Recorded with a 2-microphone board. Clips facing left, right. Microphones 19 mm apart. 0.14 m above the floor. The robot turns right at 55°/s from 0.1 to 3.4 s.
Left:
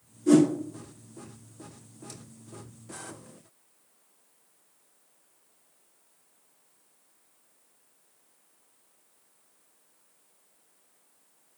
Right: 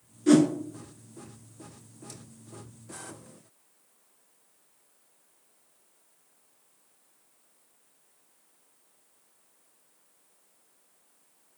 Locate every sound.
0.3 s a whoosh: 45° right (ahead or behind), 0.8 m; by 0.5 s 50° right (ahead or behind), 0.8 m